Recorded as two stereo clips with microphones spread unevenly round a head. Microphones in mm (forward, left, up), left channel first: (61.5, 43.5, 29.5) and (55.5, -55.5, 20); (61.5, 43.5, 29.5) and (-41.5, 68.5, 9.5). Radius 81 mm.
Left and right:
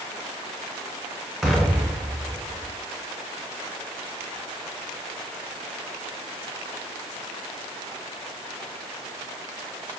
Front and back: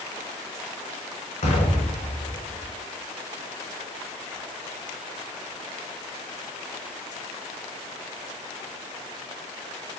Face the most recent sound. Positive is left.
turn(degrees=0)